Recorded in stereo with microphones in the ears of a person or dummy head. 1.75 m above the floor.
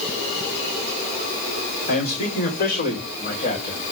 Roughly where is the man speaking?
Left.